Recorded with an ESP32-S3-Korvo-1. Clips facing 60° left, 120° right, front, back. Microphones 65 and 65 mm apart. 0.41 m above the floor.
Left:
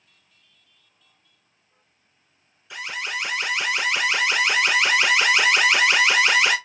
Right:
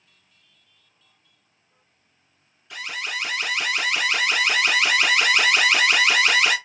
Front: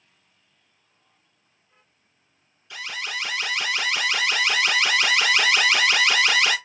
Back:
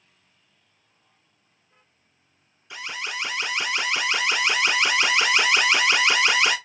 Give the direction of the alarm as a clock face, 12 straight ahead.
8 o'clock.